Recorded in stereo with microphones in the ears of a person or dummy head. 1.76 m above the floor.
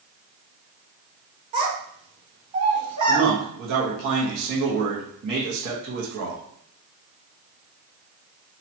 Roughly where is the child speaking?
Right.